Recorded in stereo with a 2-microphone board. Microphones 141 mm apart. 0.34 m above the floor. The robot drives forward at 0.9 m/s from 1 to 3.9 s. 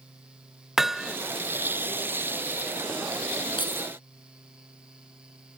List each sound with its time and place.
0.8 s hammering: centre (ahead or behind)
3.6 s keys jangling: 35° left (ahead or behind)